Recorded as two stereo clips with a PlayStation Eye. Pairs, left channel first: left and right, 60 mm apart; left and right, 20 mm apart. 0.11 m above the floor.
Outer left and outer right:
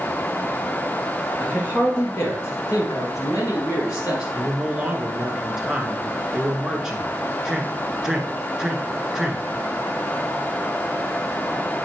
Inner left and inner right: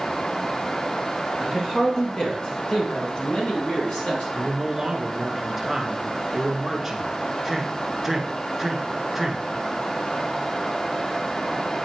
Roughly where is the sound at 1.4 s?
Left.